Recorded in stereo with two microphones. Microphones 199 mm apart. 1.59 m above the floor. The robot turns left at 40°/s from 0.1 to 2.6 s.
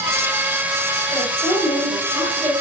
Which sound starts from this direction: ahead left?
A woman speaking, at 1.1 s.